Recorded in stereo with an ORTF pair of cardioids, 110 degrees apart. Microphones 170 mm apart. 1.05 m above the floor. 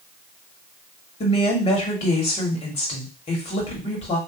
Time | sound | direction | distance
1.2 | a woman speaking | 40° left | 1.7 m